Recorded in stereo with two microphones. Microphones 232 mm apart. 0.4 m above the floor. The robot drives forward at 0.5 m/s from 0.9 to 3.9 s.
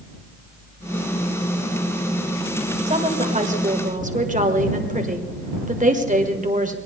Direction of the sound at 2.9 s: 30° right (ahead or behind).